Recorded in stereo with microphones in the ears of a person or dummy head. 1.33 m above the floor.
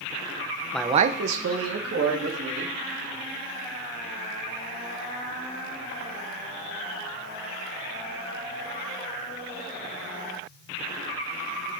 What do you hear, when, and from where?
0.7 s a man speaking: 5° left (ahead or behind), 0.5 m; by 2.7 s 85° right, 3 m